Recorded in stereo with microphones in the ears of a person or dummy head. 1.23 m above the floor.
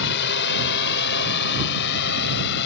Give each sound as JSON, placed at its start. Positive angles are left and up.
{"t": 0.0, "sound": "a drone", "side_deg": 60}